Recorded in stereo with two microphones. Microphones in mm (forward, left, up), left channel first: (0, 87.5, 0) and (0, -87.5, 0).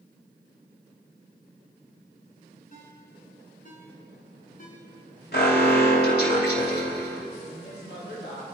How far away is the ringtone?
About 4 m.